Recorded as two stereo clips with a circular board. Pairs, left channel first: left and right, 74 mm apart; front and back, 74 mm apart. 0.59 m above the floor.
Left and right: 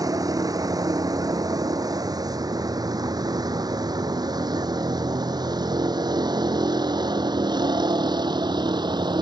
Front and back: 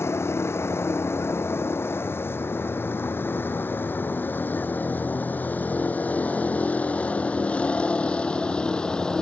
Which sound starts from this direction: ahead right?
A vehicle, at 0.0 s.